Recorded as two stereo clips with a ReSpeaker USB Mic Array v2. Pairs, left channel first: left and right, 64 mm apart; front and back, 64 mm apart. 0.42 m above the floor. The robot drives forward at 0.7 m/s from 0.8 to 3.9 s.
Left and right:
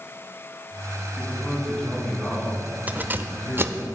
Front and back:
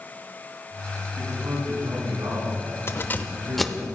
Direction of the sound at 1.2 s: 170° left.